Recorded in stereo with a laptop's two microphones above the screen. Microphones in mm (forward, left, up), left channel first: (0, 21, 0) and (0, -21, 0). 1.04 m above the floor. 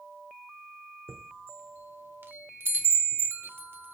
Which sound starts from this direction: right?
A chime, at 1.1 s.